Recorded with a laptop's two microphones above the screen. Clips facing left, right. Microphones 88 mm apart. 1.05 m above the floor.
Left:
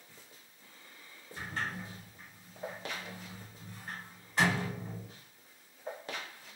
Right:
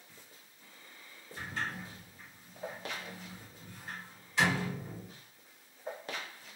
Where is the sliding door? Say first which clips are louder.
Left 1 dB; 45° left (ahead or behind), 1.2 m.